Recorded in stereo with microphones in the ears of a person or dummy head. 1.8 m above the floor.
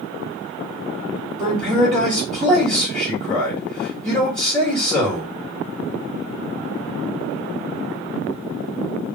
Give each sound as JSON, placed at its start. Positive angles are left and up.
{"t": 1.4, "sound": "a man speaking", "side_deg": 15, "distance_m": 2.0}